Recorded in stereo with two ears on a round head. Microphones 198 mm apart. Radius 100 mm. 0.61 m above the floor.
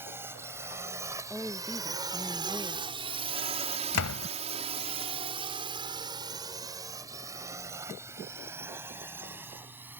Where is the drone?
10° right (ahead or behind).